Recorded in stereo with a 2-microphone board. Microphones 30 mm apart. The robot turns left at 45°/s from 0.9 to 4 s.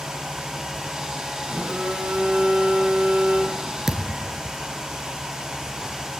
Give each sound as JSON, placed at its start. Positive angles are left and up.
{"t": 1.5, "sound": "a phone buzzing", "azimuth_deg": -30, "distance_m": 6.0}
{"t": 3.9, "sound": "a thud", "side_deg": -10, "distance_m": 2.5}